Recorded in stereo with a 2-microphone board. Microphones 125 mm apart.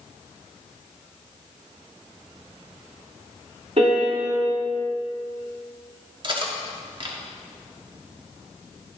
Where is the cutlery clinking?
40° right (ahead or behind), 1.1 m.